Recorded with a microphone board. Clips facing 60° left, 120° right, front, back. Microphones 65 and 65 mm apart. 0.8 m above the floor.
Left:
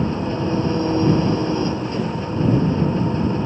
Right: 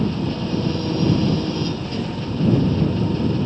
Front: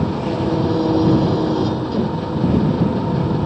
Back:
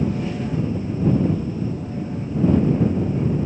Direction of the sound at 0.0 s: 5° right.